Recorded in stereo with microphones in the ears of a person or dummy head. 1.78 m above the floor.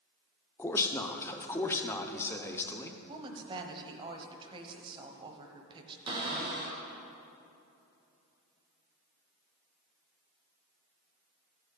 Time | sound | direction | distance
0.6 | a man speaking | 10° left (ahead or behind) | 0.7 m
3.1 | a woman speaking | 30° right (ahead or behind) | 0.9 m
6.1 | a cupboard door | 25° right (ahead or behind) | 1.3 m